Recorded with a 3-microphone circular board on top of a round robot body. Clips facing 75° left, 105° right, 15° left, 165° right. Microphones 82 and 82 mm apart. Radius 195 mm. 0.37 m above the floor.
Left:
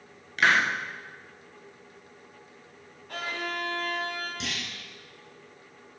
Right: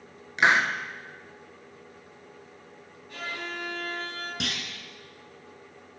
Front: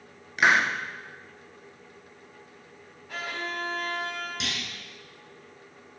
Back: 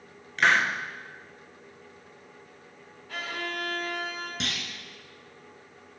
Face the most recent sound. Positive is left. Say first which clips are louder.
# right 1 dB, even
turn(degrees=-120)